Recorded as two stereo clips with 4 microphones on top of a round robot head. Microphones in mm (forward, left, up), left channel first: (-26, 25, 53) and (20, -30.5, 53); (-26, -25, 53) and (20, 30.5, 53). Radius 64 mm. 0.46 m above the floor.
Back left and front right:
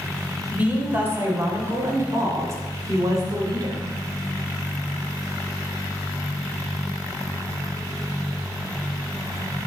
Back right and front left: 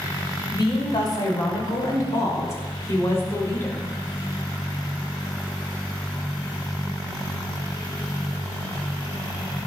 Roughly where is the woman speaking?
Behind right.